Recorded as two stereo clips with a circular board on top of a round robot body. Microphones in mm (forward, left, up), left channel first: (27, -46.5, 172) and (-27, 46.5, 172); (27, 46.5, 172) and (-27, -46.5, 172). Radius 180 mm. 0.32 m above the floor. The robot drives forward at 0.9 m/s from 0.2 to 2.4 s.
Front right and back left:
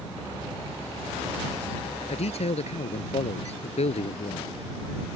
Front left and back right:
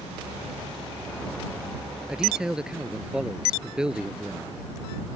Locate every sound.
2.1 s a man speaking: 35° right